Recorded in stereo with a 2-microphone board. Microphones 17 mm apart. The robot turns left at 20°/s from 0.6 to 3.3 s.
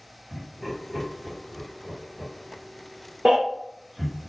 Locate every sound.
0.3 s laughter: 5° right (ahead or behind), 1.4 m; by 4.2 s 25° right (ahead or behind), 1.4 m
3.2 s a baby crying: 75° right (ahead or behind), 1.8 m